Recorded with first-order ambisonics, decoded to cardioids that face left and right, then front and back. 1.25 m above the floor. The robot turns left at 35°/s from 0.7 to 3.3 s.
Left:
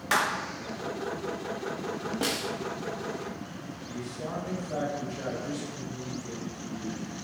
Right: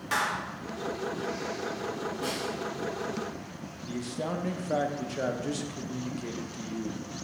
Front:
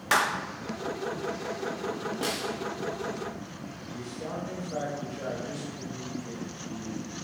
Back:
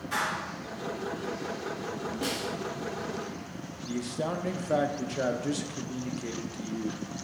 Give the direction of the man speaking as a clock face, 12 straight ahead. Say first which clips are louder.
Right 4 dB, back 6 dB; 5 o'clock.